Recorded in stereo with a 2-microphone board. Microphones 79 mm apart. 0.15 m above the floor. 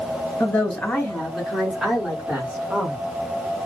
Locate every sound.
0.4 s a woman speaking: 20° left (ahead or behind), 1.6 m; by 3.0 s 30° right (ahead or behind), 2.0 m